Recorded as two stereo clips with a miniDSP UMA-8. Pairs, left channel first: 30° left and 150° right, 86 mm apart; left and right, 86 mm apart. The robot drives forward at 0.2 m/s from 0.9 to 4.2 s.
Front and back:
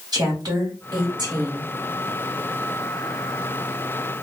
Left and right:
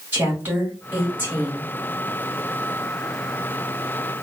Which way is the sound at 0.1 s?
150° right.